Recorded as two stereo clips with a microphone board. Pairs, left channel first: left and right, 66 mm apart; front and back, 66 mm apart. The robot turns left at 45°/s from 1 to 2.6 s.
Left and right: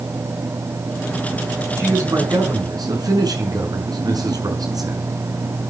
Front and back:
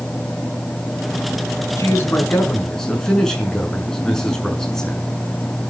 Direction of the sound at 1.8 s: 45° right.